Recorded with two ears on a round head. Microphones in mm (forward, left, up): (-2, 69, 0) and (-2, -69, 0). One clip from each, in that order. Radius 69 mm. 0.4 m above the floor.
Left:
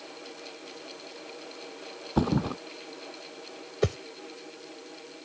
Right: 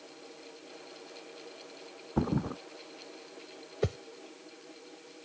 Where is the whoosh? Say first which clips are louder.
Left 5 dB; 20° left (ahead or behind).